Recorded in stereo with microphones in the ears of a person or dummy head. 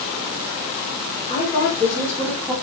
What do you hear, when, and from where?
1.3 s a woman speaking: 15° left (ahead or behind), 4 m; by 2.5 s 10° left (ahead or behind), 3 m